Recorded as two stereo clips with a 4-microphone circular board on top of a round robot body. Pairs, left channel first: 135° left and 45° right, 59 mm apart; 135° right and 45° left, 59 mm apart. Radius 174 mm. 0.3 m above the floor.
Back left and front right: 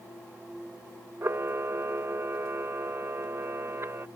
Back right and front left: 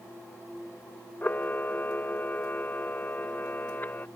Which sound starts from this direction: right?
A camera shutter, at 1.2 s.